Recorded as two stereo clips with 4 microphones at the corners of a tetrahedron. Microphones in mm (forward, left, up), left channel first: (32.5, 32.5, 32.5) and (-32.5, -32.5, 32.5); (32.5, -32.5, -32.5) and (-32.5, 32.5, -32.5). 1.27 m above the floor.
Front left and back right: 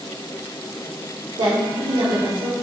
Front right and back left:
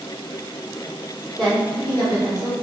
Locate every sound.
1.4 s a woman speaking: 135° right, 0.6 m; by 2.6 s 105° right, 1.3 m